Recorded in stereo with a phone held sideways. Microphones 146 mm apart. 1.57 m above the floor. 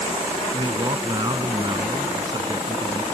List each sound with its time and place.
0.5 s a man speaking: 30° right (ahead or behind)